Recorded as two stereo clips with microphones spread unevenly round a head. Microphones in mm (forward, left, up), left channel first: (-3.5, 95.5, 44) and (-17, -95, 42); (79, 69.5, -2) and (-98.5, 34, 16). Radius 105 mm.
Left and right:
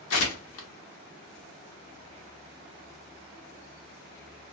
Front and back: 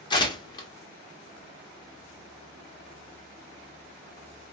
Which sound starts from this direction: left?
Tearing paper, at 0.1 s.